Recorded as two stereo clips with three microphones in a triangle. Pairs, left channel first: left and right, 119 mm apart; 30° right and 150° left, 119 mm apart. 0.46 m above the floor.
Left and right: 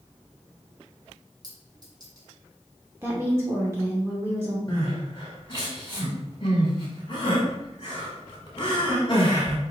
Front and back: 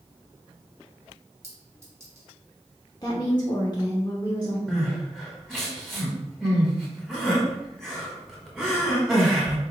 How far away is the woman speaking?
About 0.8 m.